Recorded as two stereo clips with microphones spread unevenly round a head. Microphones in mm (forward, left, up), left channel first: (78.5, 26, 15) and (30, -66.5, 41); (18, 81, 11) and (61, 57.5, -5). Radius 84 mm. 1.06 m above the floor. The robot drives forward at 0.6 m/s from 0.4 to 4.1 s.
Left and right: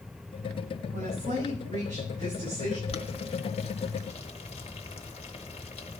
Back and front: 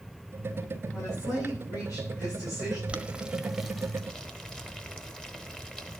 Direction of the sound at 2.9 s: 50° left.